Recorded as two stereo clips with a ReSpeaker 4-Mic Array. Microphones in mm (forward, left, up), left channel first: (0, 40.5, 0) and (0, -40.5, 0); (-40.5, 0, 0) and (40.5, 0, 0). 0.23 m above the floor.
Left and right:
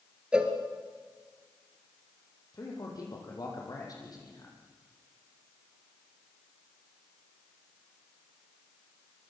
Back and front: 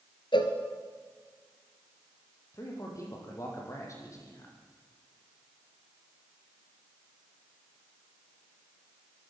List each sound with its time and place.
0.3 s a cowbell: 170° right, 2.5 m
2.5 s a man speaking: 130° left, 8 m